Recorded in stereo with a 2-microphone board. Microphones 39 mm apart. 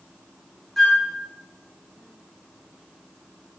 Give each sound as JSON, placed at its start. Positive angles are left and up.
{"t": 0.8, "sound": "a flute", "side_deg": 5, "distance_m": 1.8}